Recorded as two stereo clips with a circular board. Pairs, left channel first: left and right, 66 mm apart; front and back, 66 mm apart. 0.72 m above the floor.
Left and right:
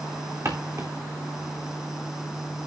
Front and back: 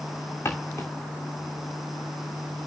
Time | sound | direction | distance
0.5 | footsteps | 50° right | 3 m